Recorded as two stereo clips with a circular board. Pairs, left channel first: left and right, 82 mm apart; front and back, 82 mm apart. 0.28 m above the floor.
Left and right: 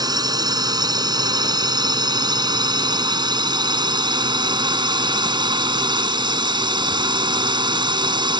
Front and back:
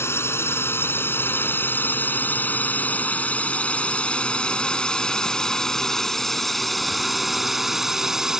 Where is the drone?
60° right; by 8.4 s 100° right.